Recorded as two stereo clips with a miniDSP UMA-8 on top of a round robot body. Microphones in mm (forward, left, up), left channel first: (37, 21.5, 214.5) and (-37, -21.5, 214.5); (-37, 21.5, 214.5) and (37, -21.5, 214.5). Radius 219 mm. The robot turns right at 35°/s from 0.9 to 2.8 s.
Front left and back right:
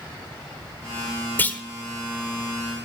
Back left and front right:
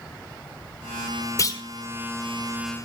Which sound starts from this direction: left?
A clunk, at 1.4 s.